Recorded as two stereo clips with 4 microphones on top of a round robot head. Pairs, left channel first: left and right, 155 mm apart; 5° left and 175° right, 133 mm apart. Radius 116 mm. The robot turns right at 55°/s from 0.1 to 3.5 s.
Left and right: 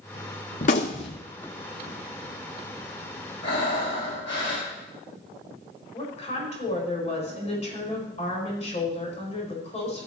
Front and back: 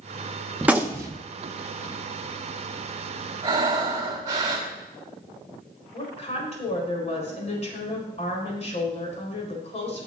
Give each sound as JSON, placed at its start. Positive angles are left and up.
{"t": 0.6, "sound": "a gunshot", "azimuth_deg": 105, "distance_m": 0.5}
{"t": 3.4, "sound": "breathing", "azimuth_deg": 125, "distance_m": 3.0}
{"t": 5.9, "sound": "a woman speaking", "azimuth_deg": 40, "distance_m": 4.5}